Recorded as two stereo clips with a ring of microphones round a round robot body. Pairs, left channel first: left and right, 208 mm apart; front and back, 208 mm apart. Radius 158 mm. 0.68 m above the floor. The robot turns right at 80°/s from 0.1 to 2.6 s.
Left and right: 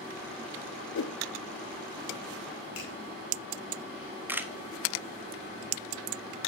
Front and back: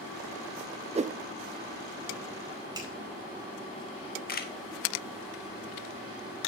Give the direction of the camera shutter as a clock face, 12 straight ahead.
12 o'clock.